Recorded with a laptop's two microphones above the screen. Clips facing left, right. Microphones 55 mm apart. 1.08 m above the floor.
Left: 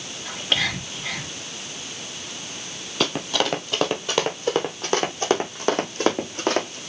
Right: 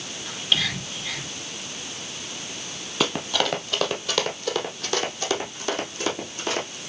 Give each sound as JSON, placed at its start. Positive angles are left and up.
{"t": 0.2, "sound": "whispering", "side_deg": 55, "distance_m": 2.5}
{"t": 3.0, "sound": "running footsteps", "side_deg": 0, "distance_m": 1.4}